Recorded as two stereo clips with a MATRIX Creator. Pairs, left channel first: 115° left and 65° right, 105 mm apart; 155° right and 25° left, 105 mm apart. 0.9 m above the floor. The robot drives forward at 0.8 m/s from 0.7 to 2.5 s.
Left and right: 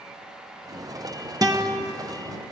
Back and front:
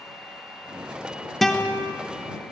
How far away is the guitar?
About 0.7 m.